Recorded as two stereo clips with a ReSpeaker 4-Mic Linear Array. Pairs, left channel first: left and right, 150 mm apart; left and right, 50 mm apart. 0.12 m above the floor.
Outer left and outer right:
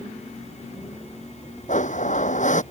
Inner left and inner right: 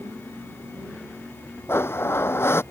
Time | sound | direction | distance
1.7 | a blender | 55° left (ahead or behind) | ?